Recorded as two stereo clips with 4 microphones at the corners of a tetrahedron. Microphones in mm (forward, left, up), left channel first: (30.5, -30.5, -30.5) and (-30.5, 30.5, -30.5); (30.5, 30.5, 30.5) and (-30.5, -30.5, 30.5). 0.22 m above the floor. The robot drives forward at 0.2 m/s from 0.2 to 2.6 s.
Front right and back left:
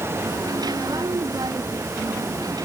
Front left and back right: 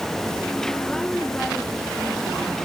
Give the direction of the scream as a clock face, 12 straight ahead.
I don't hear a scream.